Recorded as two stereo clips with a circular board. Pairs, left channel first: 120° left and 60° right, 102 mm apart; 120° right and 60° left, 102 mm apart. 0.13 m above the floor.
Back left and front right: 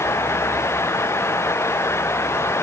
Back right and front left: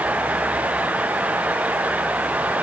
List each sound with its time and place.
Only background noise.